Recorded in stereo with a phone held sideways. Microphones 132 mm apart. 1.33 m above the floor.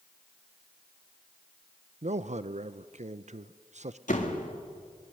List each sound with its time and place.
2.0 s a man speaking: 65° right (ahead or behind), 0.6 m
4.1 s a door slam: 85° left, 2.0 m